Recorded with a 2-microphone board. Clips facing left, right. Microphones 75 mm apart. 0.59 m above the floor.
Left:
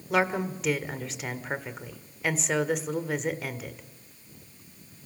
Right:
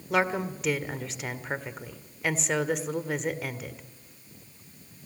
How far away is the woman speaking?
About 1.6 m.